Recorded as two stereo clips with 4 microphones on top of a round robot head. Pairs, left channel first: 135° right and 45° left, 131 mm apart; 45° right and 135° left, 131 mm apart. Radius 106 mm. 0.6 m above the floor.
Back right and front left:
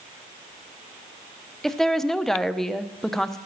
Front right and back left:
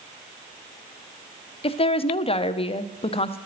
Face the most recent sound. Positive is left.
turn(degrees=-50)